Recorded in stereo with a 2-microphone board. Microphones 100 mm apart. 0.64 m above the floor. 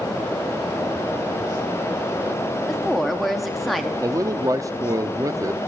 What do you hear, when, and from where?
2.7 s a woman speaking: centre (ahead or behind), 1.1 m
4.0 s a man speaking: 30° right (ahead or behind), 0.7 m